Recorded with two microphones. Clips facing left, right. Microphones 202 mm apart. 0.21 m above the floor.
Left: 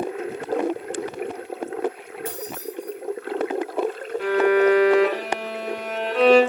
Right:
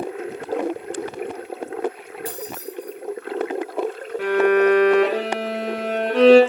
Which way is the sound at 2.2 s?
35° right (ahead or behind).